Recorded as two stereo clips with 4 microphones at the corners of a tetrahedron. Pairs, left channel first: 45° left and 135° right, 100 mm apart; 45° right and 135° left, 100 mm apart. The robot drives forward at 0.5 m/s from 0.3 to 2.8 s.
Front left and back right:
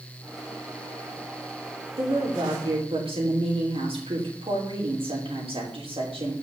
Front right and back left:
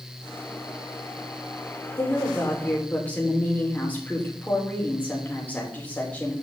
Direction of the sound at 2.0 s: 110° right.